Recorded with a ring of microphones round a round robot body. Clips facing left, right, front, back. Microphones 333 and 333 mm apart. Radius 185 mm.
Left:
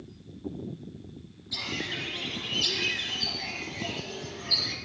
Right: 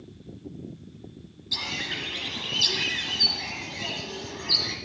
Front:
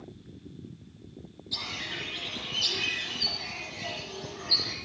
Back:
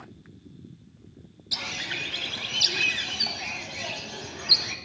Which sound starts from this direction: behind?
A bird, at 1.5 s.